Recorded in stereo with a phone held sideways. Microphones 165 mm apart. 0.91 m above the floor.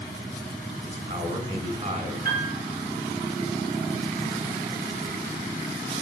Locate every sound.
0.8 s a man speaking: 40° right (ahead or behind), 6.5 m
2.2 s a piano: 55° right (ahead or behind), 7.5 m